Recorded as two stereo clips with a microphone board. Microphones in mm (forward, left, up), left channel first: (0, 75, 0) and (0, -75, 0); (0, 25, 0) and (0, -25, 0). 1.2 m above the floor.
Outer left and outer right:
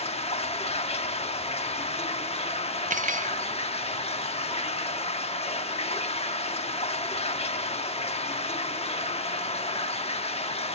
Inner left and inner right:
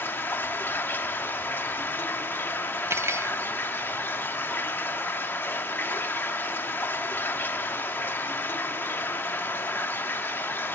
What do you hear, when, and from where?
0.0 s running water: 40° left (ahead or behind), 0.8 m
2.9 s cutlery clinking: 60° right (ahead or behind), 0.5 m